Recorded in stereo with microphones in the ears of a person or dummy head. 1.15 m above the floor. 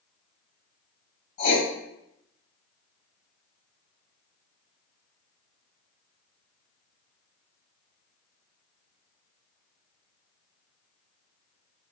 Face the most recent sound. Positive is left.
turn(degrees=45)  # may be behind; listen again after turning